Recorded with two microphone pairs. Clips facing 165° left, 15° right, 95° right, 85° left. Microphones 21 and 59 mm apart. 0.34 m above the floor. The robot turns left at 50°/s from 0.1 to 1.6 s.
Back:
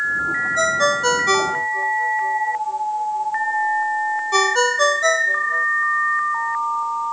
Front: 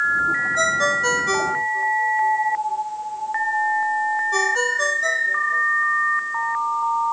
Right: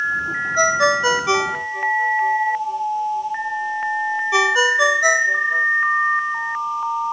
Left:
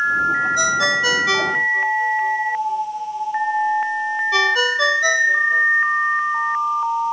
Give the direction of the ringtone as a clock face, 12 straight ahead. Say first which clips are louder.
Back 4 dB, right 2 dB; 4 o'clock.